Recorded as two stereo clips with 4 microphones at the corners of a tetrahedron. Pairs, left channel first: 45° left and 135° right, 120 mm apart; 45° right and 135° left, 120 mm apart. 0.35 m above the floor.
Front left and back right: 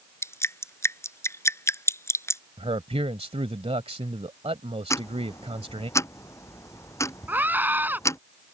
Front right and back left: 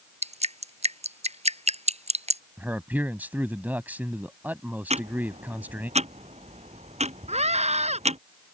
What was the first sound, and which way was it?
Dripping, 110° left.